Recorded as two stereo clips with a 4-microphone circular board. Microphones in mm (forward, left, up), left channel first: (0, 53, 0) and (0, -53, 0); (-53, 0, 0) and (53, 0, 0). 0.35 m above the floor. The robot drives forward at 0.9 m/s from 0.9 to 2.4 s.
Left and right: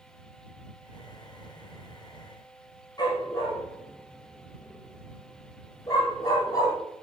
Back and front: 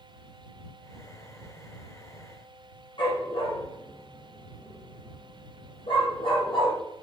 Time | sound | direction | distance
3.0 | a dog barking | 140° left | 4.5 m